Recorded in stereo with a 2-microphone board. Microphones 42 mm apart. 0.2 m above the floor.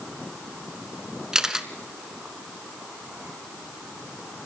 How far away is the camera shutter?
About 1.2 m.